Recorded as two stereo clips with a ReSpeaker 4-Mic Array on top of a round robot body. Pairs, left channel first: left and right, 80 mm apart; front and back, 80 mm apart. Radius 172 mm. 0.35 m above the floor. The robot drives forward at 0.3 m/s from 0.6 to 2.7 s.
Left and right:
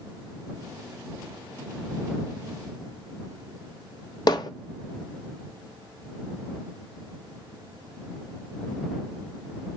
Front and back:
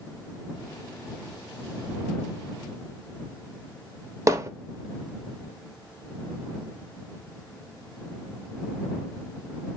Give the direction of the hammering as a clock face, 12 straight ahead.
8 o'clock.